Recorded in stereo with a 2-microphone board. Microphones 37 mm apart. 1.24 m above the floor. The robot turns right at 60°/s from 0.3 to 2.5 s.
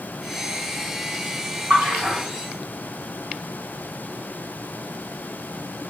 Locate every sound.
1.7 s a splash: 60° right (ahead or behind), 1.9 m